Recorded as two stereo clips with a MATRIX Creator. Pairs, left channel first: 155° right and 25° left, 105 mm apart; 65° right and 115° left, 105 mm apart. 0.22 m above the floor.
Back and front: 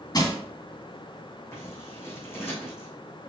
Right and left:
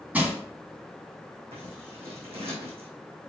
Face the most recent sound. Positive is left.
turn(degrees=135)